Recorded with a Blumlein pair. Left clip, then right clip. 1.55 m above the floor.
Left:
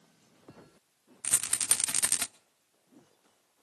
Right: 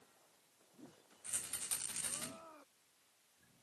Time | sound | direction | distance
1.2 | a rattle | 40° left | 0.7 m